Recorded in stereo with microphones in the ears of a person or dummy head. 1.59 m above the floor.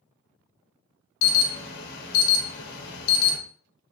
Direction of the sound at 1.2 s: 60° left (ahead or behind).